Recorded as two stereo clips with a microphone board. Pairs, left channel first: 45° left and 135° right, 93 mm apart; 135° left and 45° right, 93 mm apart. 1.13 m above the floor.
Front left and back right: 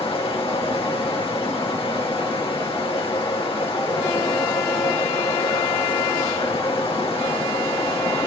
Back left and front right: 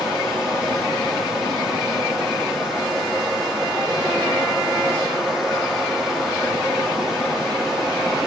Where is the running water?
40° left, 1.9 m.